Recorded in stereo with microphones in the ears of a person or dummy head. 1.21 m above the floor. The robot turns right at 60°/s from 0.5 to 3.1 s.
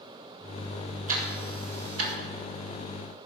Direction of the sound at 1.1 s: 40° right (ahead or behind).